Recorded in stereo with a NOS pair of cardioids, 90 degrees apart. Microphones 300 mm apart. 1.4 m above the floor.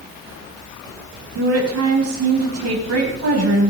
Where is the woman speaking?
55° right, 8 m.